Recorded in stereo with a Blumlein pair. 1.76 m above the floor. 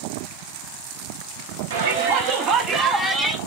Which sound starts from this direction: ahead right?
A shout, at 1.7 s.